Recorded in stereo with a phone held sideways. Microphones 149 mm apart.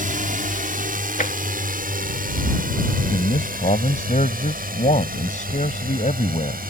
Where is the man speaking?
55° left (ahead or behind).